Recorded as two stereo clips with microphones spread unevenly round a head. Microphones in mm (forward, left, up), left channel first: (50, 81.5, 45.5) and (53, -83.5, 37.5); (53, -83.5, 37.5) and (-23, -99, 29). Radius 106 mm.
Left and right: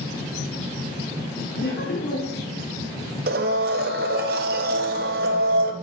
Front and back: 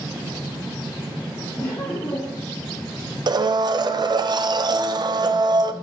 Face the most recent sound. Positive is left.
turn(degrees=-135)